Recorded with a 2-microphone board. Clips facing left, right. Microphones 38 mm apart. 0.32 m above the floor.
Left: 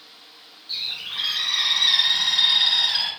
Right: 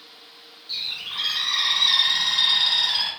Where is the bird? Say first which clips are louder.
Even; 10° left (ahead or behind), 1.6 m.